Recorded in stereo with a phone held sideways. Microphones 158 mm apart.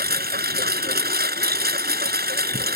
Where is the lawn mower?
80° right.